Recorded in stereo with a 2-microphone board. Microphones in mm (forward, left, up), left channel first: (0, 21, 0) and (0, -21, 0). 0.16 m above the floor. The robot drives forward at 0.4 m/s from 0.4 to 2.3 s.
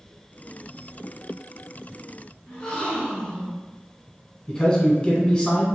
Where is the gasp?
25° left (ahead or behind), 1.3 m.